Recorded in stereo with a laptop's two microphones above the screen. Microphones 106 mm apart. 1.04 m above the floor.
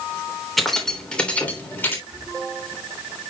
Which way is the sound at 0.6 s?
Centre (ahead or behind).